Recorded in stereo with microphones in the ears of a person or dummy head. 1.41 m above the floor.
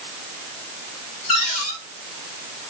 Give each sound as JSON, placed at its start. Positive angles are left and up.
{"t": 1.3, "sound": "a cupboard door", "side_deg": 40, "distance_m": 2.5}